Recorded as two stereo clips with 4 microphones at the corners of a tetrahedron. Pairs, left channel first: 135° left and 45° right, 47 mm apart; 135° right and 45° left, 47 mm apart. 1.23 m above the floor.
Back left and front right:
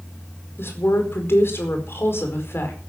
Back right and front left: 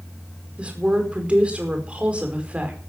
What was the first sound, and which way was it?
A woman speaking, 110° left.